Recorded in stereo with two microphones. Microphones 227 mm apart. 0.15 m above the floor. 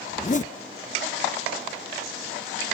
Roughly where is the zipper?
Left.